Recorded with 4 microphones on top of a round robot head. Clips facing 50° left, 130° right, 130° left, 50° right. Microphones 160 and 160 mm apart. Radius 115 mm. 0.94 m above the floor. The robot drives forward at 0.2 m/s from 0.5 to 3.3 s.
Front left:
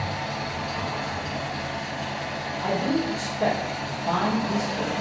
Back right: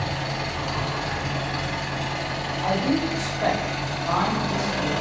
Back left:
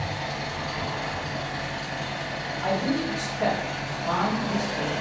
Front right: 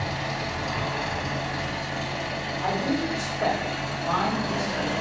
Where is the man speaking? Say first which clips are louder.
Back right 2 dB, back left 1 dB; 45° left, 1.4 m; by 4.9 s 50° left, 1.4 m.